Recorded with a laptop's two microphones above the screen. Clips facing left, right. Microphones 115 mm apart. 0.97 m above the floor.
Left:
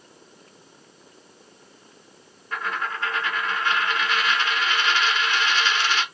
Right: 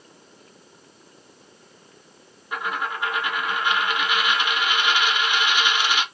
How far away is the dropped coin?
About 0.7 m.